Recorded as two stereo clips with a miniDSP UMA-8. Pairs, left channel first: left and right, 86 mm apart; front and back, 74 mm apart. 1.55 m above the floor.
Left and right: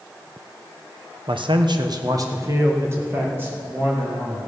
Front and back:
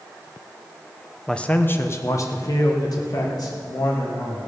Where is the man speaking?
85° right, 0.9 m; by 4.4 s 20° right, 3 m.